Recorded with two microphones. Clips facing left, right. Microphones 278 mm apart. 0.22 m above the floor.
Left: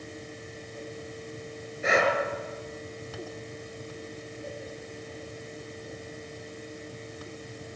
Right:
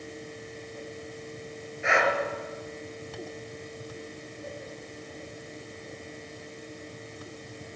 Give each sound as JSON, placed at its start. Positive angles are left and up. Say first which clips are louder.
{"t": 1.8, "sound": "breathing", "louder": "left 2 dB", "side_deg": 40, "distance_m": 4.5}